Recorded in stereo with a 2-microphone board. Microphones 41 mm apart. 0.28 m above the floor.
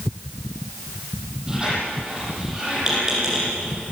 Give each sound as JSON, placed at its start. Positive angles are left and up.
{"t": 1.5, "sound": "a squeak", "side_deg": -15, "distance_m": 7.0}